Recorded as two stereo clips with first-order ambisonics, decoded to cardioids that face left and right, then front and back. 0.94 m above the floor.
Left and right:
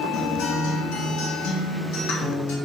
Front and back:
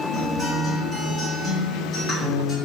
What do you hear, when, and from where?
0.1 s a guitar: 75° left, 0.9 m